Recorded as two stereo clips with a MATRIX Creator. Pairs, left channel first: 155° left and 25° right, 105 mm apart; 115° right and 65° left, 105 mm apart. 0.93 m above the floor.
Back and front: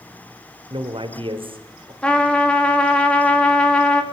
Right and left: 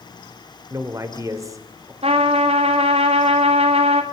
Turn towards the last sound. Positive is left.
turn(degrees=75)